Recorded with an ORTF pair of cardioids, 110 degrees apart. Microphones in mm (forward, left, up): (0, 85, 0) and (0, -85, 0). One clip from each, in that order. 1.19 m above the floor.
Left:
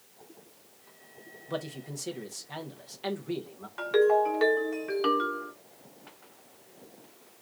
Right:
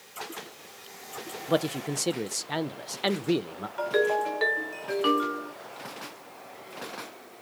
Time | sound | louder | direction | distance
1.5 | a man speaking | right 9 dB | 45° right | 0.5 m
3.8 | a ringtone | left 2 dB | 5° right | 1.8 m